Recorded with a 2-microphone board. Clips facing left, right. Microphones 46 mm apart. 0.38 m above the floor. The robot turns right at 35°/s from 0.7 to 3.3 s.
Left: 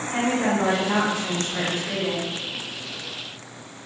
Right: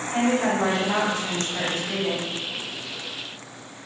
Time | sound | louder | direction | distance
0.1 | a woman speaking | right 1 dB | 15° left | 1.4 m